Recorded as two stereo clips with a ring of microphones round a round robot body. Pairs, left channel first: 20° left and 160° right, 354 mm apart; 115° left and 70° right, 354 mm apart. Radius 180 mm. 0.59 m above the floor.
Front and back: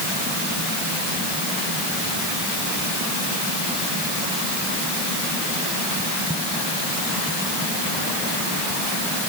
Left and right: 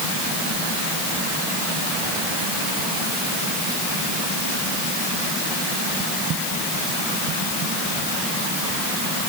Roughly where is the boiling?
No boiling in this recording.